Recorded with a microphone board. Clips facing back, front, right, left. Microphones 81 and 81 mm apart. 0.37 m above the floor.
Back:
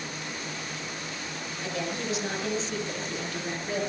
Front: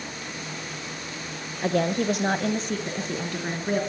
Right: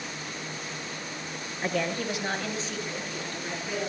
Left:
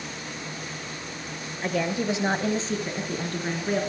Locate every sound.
1.6 s a woman speaking: 10° right, 1.1 m; by 3.8 s 45° left, 4 m